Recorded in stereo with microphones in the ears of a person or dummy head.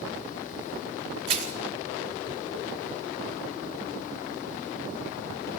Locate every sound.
1.3 s crushing: 40° right (ahead or behind), 4.5 m